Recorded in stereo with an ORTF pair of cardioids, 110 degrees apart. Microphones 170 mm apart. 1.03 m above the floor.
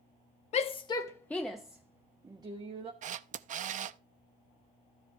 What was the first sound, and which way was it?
A shout, 40° left.